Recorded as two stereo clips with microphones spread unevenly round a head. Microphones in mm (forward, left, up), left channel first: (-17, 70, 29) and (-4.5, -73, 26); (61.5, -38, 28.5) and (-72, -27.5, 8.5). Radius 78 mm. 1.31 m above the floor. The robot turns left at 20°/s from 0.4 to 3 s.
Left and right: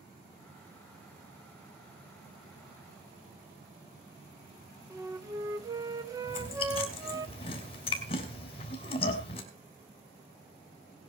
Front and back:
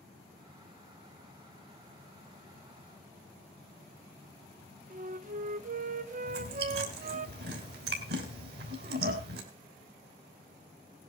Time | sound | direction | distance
4.9 | a flute | 155° right | 1.0 m
6.3 | chewing | 150° left | 3.5 m